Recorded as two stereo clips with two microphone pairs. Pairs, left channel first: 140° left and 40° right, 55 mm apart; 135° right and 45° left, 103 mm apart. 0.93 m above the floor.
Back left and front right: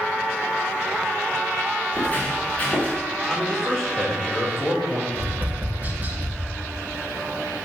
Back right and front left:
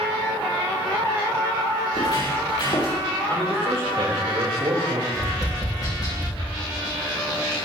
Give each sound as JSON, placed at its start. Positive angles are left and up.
{"t": 1.9, "sound": "footsteps", "azimuth_deg": -160, "distance_m": 6.0}
{"t": 3.3, "sound": "a man speaking", "azimuth_deg": 65, "distance_m": 4.5}
{"t": 5.1, "sound": "tapping", "azimuth_deg": -85, "distance_m": 2.0}